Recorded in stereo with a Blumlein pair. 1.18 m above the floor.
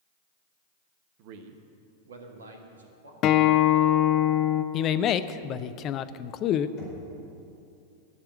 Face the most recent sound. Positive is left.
turn(degrees=35)